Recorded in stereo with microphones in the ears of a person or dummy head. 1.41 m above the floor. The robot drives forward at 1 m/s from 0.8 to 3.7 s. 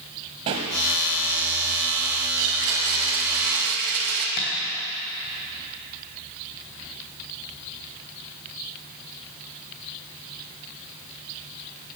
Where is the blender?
65° right (ahead or behind), 2.5 m; by 4.3 s 55° right (ahead or behind), 3 m.